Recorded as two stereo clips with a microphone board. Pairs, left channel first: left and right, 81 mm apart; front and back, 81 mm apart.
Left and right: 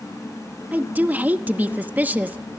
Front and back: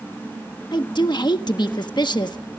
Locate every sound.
0.7 s a woman speaking: 20° right, 1.1 m